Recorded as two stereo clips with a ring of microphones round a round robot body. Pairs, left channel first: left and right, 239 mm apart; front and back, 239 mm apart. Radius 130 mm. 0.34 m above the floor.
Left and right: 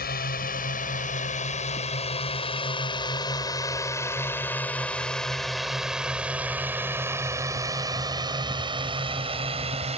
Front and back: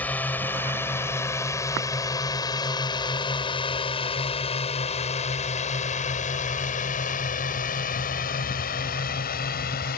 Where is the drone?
80° left; by 10.0 s 35° right.